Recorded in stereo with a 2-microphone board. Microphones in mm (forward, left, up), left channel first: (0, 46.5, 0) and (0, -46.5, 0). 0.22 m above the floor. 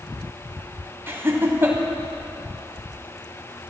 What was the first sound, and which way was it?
Laughter, 25° right (ahead or behind).